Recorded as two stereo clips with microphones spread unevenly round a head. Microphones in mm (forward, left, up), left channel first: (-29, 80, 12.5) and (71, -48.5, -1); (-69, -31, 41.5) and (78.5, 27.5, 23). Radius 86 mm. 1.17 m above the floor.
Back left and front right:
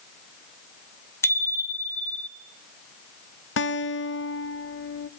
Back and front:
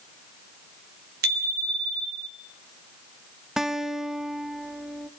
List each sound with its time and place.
1.2 s a bicycle bell: 55° left, 3 m; by 2.3 s 45° left, 3 m
3.6 s a guitar: 110° left, 0.6 m